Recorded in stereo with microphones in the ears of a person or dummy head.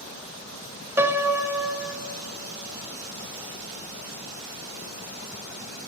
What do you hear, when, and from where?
1.0 s a piano: 5° right (ahead or behind), 0.8 m